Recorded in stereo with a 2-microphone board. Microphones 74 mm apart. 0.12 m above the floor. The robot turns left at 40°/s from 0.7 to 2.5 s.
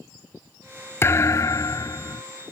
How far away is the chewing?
No chewing in this recording.